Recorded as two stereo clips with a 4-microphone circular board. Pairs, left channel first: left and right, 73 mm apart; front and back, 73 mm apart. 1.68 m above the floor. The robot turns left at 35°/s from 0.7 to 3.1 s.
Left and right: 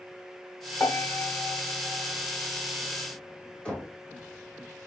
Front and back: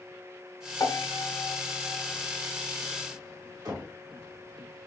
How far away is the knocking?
About 1.3 m.